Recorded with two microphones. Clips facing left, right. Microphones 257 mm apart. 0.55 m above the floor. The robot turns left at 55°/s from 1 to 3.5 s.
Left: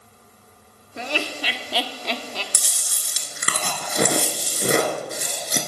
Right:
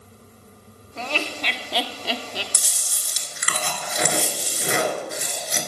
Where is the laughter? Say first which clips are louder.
Left 1 dB; 15° left (ahead or behind), 0.6 m; by 2.4 s 15° right (ahead or behind), 0.6 m.